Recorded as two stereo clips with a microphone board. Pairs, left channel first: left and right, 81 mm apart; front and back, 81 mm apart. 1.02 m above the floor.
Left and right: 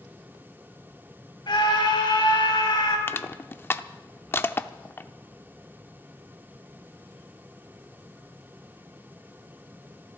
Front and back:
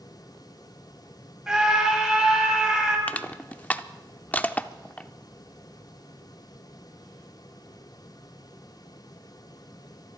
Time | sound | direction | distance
1.5 | a scream | 100° left | 5 m
3.1 | crushing | 60° left | 0.6 m